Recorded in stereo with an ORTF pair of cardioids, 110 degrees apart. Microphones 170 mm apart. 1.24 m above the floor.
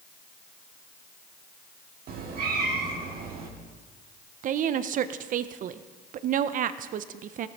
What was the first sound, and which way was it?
A cat meowing, 65° right.